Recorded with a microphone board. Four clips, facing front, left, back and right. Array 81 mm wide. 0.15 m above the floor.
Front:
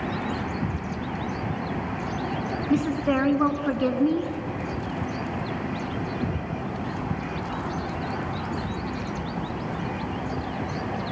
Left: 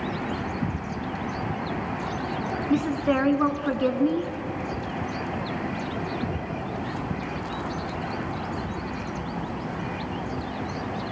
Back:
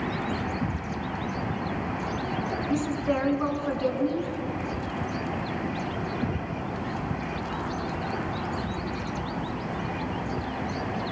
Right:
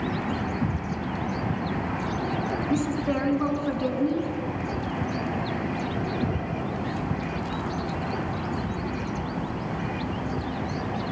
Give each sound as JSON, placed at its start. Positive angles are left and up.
{"t": 2.7, "sound": "a woman speaking", "azimuth_deg": 40, "distance_m": 1.5}